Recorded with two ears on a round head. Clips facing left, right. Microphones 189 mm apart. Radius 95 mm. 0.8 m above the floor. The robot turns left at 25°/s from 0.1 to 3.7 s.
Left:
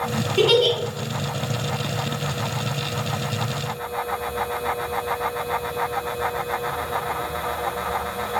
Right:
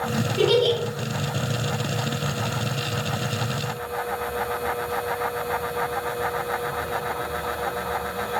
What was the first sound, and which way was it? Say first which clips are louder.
A giggle: left 2 dB; 45° left (ahead or behind).